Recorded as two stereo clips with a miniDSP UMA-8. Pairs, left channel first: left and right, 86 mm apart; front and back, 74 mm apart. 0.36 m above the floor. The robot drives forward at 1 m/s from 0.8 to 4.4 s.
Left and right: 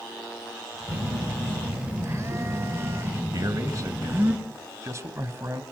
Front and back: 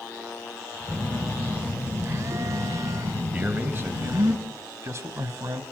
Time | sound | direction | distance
0.9 | a phone buzzing | 105° right | 1.9 m
3.3 | a man speaking | 120° right | 2 m